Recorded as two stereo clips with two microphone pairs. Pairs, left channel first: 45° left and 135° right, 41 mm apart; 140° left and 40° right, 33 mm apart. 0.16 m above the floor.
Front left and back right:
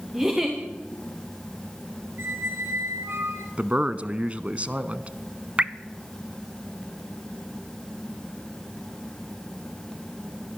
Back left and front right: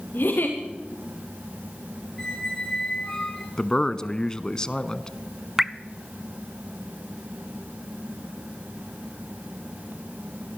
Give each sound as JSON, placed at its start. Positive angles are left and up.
{"t": 0.1, "sound": "a giggle", "azimuth_deg": 150, "distance_m": 7.0}
{"t": 2.2, "sound": "a squeak", "azimuth_deg": -150, "distance_m": 3.0}
{"t": 3.6, "sound": "a man speaking", "azimuth_deg": -165, "distance_m": 1.3}
{"t": 5.6, "sound": "dripping", "azimuth_deg": -110, "distance_m": 0.7}